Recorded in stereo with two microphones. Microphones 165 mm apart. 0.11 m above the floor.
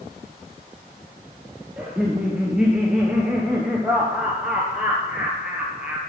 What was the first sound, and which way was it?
Laughter, 5° right (ahead or behind).